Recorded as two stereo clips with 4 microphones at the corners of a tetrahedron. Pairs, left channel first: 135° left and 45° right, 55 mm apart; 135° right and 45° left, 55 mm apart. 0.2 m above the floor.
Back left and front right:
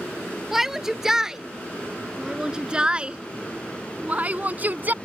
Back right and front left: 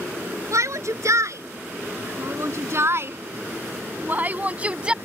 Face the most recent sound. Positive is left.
turn(degrees=-20)